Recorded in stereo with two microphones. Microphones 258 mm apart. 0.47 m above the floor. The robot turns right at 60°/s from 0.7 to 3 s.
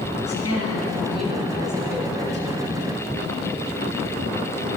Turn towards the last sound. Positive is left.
turn(degrees=-115)